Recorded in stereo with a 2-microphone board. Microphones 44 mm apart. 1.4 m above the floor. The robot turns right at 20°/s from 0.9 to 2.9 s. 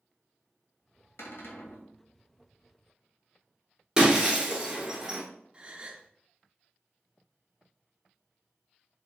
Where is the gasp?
25° right (ahead or behind), 0.7 m.